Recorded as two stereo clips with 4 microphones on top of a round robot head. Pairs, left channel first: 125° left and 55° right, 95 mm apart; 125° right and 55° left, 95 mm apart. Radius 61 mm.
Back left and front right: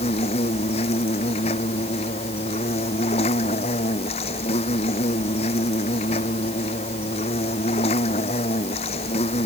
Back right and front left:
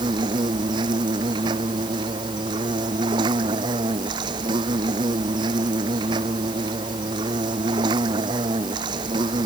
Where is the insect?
100° left.